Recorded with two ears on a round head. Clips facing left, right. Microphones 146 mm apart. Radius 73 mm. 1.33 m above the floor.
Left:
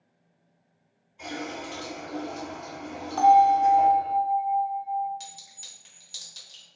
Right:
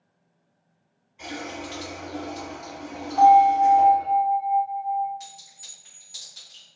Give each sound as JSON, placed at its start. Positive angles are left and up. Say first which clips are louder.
{"t": 1.2, "sound": "a running tap", "louder": "even", "side_deg": -10, "distance_m": 1.7}
{"t": 3.2, "sound": "a bell", "louder": "right 3 dB", "side_deg": 50, "distance_m": 0.7}
{"t": 5.2, "sound": "a clink", "louder": "right 2 dB", "side_deg": 35, "distance_m": 1.2}